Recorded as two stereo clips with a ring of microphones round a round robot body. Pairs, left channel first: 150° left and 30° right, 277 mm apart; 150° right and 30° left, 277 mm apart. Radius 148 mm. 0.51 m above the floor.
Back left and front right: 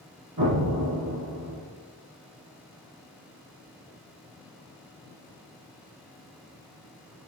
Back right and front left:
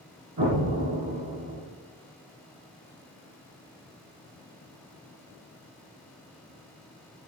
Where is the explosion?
5° right, 3.5 m.